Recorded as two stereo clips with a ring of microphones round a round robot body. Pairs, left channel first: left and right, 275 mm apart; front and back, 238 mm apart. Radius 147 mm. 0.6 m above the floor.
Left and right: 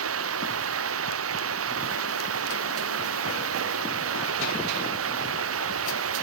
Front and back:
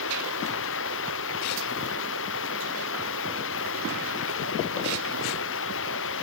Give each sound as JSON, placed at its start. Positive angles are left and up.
{"t": 0.0, "sound": "running water", "azimuth_deg": -50}